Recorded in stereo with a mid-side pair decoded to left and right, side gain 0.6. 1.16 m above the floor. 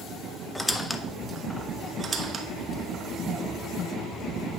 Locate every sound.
0.6 s a squeak: 10° left, 0.6 m
2.0 s a squeak: 30° right, 1.1 m